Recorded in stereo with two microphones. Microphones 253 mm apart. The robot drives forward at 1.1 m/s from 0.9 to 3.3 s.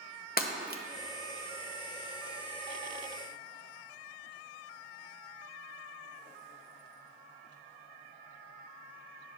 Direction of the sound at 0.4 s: 35° left (ahead or behind).